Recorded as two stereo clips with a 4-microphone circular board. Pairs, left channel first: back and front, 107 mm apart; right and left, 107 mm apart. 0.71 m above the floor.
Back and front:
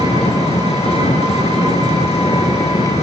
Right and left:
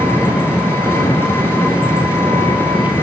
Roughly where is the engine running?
Behind.